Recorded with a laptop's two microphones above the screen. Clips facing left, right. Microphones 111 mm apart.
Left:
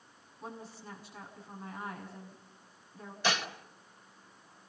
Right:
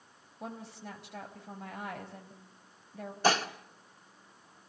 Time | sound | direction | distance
0.4 | a woman speaking | 80° right | 4.5 m
3.2 | dishes clattering | 40° right (ahead or behind) | 1.8 m